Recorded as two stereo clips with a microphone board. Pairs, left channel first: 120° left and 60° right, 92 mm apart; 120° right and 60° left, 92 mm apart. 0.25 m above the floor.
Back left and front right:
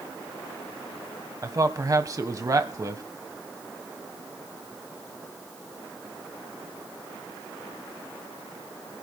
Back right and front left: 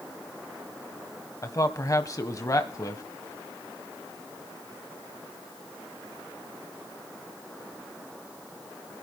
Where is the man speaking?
90° right, 1.6 m.